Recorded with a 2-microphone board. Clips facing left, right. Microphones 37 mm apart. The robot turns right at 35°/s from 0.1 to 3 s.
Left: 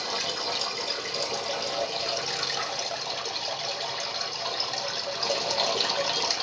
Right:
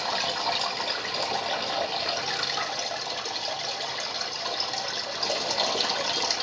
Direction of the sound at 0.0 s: 100° right.